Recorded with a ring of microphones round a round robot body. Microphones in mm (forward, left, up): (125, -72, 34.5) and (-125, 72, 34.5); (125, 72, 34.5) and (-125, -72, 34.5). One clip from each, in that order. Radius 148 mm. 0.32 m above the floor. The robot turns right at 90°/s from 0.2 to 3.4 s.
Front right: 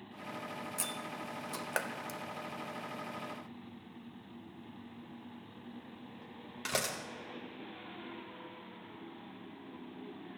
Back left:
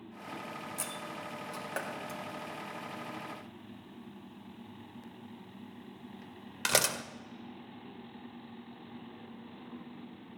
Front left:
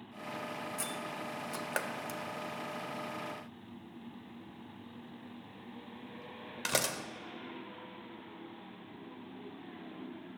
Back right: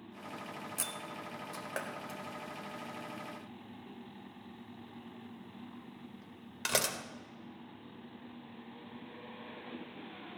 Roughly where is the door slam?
Right.